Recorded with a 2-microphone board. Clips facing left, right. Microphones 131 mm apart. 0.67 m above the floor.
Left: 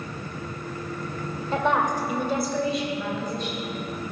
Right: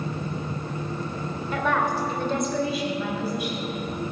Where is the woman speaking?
30° left (ahead or behind), 1.9 m; by 3.7 s 15° right (ahead or behind), 4 m.